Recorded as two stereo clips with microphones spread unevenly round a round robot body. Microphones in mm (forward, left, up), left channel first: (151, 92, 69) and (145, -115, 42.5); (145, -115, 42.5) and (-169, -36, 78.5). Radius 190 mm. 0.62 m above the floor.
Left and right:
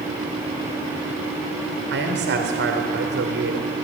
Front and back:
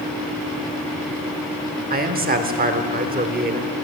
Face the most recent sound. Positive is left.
turn(degrees=-130)